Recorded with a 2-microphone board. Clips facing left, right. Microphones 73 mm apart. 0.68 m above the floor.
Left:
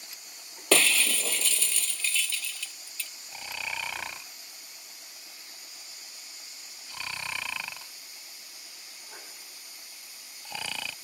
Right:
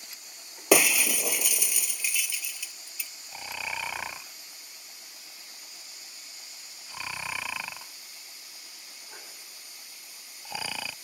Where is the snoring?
10° right (ahead or behind).